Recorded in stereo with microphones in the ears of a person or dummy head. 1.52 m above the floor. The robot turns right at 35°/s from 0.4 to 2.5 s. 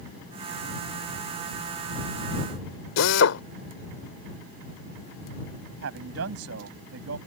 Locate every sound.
3.0 s a drill: 75° left (ahead or behind)
5.8 s a man speaking: 85° right